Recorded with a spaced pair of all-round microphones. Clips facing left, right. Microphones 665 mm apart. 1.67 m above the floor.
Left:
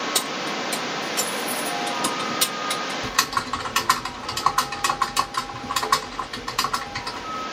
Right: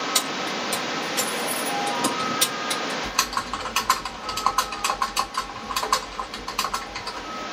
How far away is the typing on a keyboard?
About 1.3 m.